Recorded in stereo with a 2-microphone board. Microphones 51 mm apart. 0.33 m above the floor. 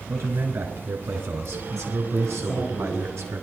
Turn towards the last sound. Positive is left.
turn(degrees=45)  # may be behind; listen again after turning